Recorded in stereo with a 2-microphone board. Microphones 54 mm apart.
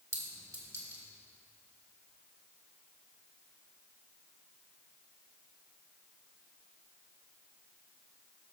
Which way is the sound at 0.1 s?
75° right (ahead or behind).